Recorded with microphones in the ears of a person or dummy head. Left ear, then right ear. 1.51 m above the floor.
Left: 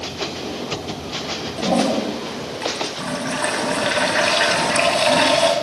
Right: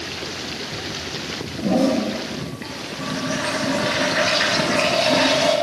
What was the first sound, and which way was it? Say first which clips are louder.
A toilet flushing: even; 25° left (ahead or behind).